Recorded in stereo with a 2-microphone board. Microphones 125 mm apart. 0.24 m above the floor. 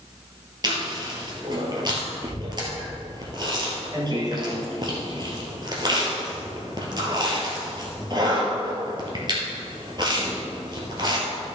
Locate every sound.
0.6 s chewing: 40° right (ahead or behind), 2 m